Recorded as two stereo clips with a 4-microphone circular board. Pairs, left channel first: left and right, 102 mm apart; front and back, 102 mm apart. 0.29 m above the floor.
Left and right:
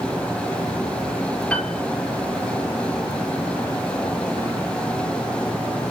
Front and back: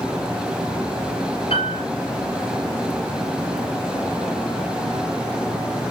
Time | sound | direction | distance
1.5 | a piano | 10° left | 2 m